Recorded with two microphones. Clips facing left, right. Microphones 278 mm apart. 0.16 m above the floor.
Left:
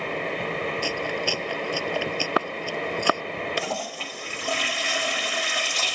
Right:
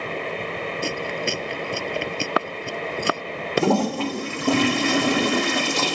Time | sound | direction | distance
0.8 | chewing | 25° right (ahead or behind) | ?
3.6 | a toilet flushing | 65° right (ahead or behind) | ?